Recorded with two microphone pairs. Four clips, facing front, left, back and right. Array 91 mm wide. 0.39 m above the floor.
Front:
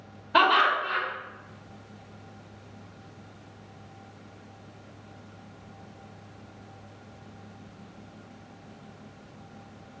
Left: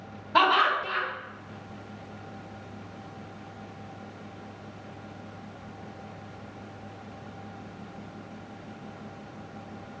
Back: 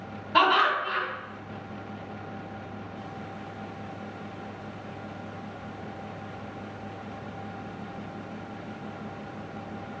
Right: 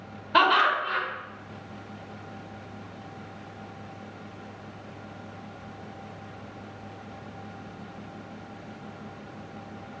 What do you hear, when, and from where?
0.3 s laughter: 65° right, 1.0 m